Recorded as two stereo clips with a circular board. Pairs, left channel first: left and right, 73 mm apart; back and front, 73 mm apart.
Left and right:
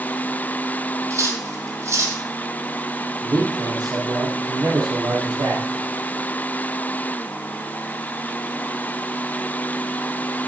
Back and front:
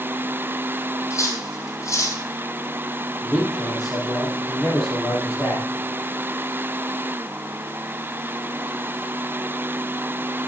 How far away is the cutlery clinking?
About 3 m.